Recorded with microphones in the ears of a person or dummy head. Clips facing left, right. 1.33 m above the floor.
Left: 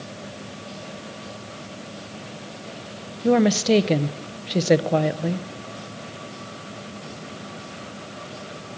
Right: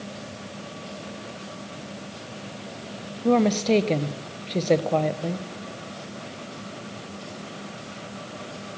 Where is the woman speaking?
10° left (ahead or behind), 0.6 m.